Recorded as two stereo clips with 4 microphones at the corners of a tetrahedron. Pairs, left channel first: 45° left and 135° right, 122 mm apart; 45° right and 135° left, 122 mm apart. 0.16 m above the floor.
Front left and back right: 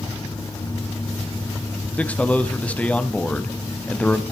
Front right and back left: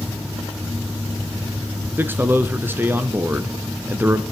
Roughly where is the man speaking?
Left.